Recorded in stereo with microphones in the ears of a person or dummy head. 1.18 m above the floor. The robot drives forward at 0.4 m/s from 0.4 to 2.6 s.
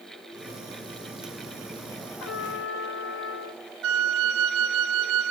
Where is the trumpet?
80° left, 1.0 m; by 3.6 s 70° left (ahead or behind), 1.1 m.